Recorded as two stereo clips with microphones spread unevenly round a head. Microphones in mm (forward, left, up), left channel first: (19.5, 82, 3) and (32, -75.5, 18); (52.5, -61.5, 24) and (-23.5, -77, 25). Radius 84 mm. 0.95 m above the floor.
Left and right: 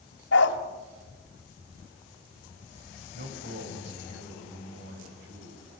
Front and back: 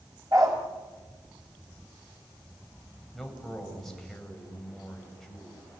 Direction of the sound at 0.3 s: 120° left.